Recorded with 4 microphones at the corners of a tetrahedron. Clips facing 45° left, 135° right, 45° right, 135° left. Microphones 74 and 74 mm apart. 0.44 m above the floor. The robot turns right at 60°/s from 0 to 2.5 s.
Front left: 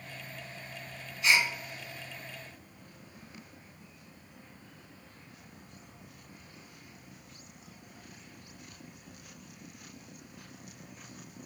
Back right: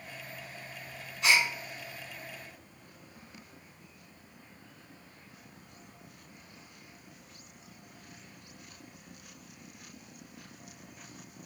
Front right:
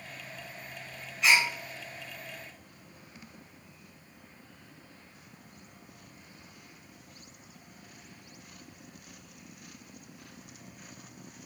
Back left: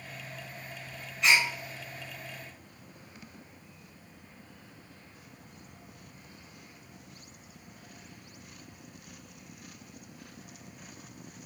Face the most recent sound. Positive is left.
turn(degrees=-55)